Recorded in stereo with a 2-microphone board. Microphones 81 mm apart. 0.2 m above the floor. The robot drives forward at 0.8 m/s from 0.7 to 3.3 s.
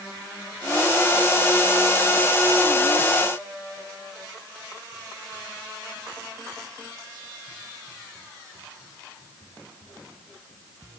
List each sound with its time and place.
Only background noise.